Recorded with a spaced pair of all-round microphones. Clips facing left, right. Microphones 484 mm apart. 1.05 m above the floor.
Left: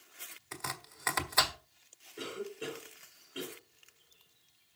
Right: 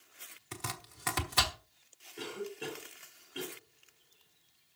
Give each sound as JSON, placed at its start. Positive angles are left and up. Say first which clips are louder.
{"t": 0.5, "sound": "chopping", "louder": "right 1 dB", "side_deg": -50, "distance_m": 1.4}
{"t": 2.2, "sound": "a cough", "louder": "even", "side_deg": -10, "distance_m": 4.0}